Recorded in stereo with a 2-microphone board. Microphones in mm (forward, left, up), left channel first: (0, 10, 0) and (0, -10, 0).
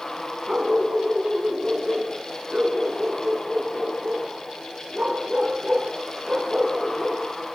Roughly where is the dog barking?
Right.